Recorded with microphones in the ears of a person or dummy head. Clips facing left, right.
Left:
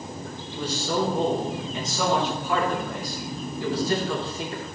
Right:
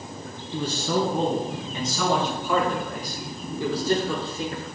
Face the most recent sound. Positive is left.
turn(degrees=-60)  # may be behind; listen again after turning